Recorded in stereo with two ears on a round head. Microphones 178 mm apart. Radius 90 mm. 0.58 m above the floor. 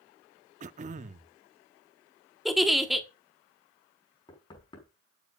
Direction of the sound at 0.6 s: 35° right (ahead or behind).